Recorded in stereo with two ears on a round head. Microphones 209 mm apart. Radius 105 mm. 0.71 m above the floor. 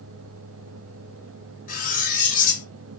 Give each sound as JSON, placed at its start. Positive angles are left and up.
{"t": 1.7, "sound": "cutlery clinking", "side_deg": 35, "distance_m": 0.8}